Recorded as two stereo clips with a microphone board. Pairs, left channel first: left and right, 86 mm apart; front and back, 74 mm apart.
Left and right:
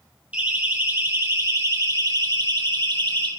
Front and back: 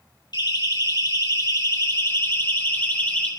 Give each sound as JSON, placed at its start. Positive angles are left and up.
{"t": 0.3, "sound": "a siren", "azimuth_deg": -20, "distance_m": 4.0}